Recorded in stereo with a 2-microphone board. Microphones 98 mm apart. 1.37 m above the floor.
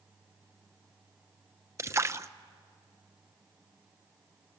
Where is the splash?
30° right (ahead or behind), 0.8 m.